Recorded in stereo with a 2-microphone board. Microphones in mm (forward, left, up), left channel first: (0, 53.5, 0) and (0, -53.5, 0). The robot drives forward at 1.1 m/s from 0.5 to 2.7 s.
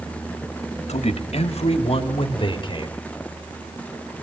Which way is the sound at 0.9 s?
90° left.